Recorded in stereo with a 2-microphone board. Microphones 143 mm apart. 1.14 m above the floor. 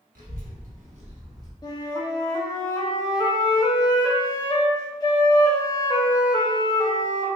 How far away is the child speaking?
About 1.4 m.